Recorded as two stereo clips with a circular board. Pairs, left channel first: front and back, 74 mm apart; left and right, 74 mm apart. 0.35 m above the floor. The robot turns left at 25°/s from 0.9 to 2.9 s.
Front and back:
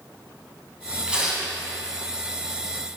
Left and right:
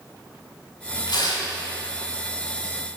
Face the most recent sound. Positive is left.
turn(degrees=60)